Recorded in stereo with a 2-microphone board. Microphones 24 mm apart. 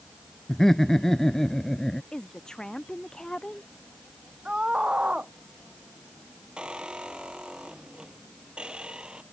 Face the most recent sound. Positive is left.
turn(degrees=-40)  # may be behind; listen again after turning